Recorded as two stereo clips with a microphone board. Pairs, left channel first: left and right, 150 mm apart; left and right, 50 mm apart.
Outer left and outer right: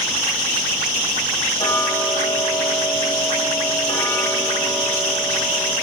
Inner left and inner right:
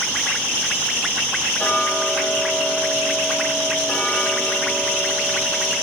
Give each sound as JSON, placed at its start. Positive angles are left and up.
{"t": 1.6, "sound": "ticking", "side_deg": 35, "distance_m": 4.0}